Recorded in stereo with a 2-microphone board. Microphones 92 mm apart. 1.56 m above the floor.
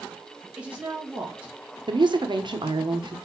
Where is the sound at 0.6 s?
15° right (ahead or behind), 2 m.